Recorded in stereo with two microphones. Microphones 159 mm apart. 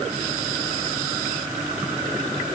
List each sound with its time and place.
Only background noise.